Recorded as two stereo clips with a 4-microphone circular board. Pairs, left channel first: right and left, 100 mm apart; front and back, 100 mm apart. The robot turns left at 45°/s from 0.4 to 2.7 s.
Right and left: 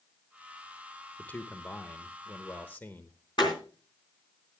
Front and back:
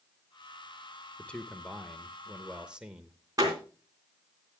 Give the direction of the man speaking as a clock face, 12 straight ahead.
2 o'clock.